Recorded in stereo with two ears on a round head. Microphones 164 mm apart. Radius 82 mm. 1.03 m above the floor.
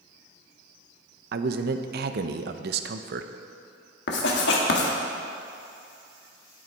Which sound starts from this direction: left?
Writing, at 4.1 s.